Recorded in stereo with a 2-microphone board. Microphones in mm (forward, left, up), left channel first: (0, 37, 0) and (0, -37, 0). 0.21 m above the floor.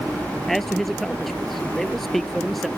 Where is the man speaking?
Centre (ahead or behind).